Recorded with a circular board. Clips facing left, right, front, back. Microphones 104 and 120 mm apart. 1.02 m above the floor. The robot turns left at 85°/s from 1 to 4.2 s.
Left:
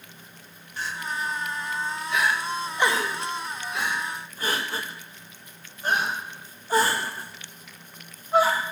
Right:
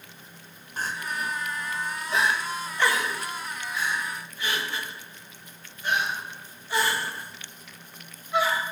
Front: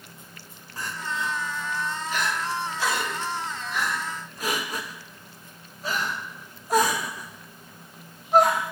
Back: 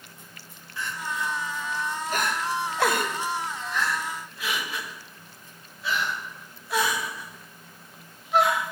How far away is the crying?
About 0.8 m.